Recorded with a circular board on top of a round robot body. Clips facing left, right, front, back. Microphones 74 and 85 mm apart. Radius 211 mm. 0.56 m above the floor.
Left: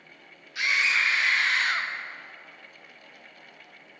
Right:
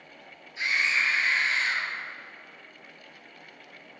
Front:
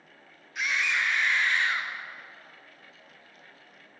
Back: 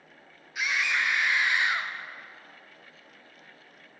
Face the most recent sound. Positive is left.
turn(degrees=110)